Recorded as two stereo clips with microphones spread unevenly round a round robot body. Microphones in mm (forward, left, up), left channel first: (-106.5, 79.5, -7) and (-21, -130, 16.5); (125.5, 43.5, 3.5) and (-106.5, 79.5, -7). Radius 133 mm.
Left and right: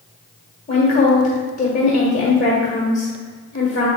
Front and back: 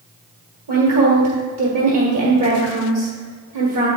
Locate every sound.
0.7 s a woman speaking: 165° left, 1.5 m